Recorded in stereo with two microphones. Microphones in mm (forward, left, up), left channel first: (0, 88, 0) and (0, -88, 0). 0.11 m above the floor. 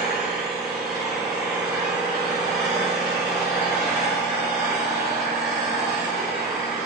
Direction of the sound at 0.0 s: 5° right (ahead or behind).